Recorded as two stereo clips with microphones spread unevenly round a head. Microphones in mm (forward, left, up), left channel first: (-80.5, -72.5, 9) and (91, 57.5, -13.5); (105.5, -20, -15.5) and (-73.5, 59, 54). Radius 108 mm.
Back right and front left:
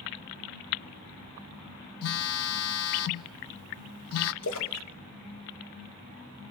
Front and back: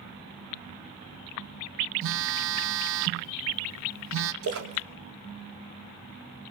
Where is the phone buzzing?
170° right, 0.6 m.